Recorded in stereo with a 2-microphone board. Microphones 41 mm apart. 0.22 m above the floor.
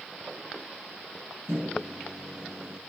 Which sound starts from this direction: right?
A microwave, at 1.5 s.